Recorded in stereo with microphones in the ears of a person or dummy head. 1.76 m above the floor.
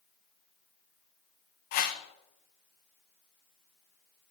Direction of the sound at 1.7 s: 45° left (ahead or behind).